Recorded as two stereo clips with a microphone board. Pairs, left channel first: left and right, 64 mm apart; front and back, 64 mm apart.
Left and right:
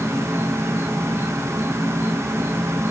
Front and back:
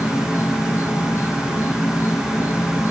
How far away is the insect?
About 2 m.